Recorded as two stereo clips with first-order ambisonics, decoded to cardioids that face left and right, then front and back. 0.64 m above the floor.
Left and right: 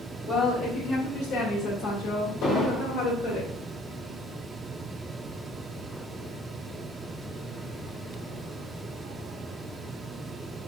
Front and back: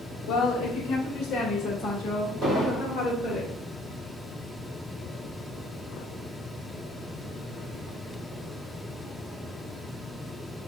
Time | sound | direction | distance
0.3 | a woman speaking | 45° left | 1.0 m
2.4 | an explosion | 105° left | 1.7 m